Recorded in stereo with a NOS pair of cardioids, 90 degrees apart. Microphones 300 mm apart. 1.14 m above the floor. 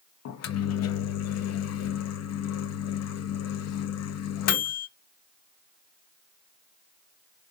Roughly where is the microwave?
Ahead left.